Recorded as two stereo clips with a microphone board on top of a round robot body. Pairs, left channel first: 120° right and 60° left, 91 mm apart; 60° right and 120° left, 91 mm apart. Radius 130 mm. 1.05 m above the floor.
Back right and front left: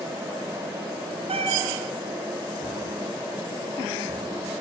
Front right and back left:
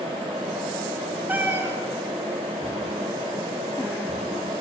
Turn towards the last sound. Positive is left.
turn(degrees=45)